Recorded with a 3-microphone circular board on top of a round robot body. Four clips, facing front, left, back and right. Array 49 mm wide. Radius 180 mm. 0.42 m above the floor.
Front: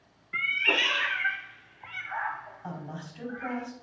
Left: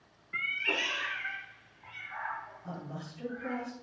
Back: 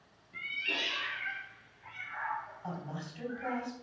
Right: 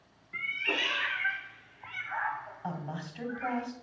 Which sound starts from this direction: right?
A woman speaking, at 2.6 s.